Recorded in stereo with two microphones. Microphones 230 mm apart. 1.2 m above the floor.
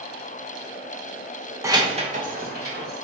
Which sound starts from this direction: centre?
Keys jangling, at 1.6 s.